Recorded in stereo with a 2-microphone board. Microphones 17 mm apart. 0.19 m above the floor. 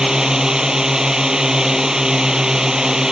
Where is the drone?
35° right (ahead or behind).